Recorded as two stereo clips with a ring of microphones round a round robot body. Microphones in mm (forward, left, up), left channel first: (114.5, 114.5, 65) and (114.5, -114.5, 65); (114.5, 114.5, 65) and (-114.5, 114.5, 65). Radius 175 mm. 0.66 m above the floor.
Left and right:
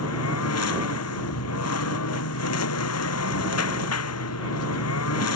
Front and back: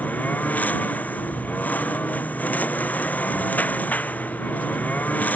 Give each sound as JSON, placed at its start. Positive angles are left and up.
{"t": 0.0, "sound": "a lawn mower", "azimuth_deg": 85}